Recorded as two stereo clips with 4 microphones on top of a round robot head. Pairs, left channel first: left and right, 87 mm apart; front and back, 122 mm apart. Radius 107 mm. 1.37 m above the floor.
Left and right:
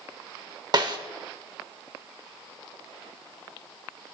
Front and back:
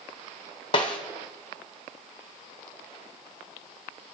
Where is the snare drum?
50° right, 0.9 m.